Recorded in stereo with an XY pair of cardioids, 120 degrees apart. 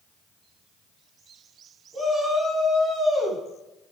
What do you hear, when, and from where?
1.9 s a shout: 20° right, 9 m